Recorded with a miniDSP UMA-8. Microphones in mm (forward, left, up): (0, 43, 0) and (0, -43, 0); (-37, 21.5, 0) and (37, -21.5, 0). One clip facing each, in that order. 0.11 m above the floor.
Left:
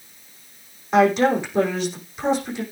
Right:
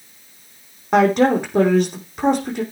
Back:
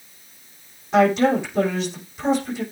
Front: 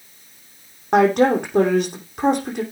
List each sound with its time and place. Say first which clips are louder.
0.9 s a woman speaking: right 2 dB, front 2 dB; 55° right, 5 m